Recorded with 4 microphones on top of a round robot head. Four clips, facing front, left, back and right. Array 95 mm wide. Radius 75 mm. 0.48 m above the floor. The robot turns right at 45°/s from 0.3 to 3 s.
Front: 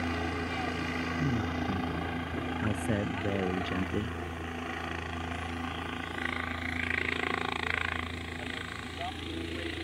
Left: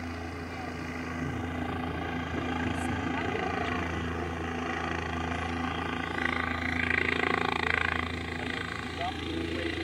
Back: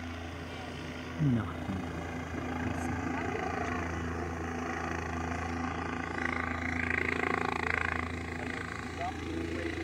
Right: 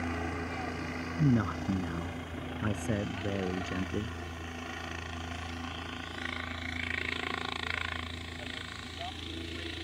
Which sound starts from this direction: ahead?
A helicopter, at 0.0 s.